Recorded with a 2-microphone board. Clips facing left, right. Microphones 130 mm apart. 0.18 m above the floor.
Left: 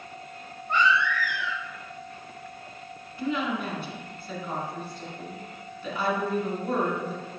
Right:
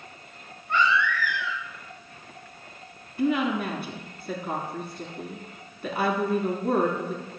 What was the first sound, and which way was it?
A baby crying, 15° left (ahead or behind).